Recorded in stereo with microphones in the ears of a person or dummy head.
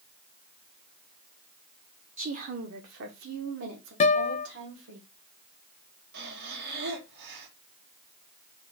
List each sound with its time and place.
2.2 s a woman speaking: 45° right (ahead or behind), 0.7 m; by 5.0 s 85° right, 1.9 m
4.0 s a guitar: 25° left (ahead or behind), 0.5 m
6.1 s breathing: 50° right (ahead or behind), 1.4 m